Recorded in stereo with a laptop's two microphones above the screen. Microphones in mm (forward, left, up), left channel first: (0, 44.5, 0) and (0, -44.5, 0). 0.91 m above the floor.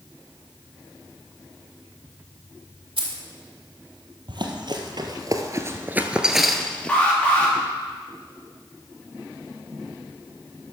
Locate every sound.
3.0 s keys jangling: 85° right, 1.8 m
4.3 s running footsteps: 60° right (ahead or behind), 1.7 m; by 7.0 s 15° left (ahead or behind), 1.3 m
6.9 s an alarm: 15° left (ahead or behind), 3 m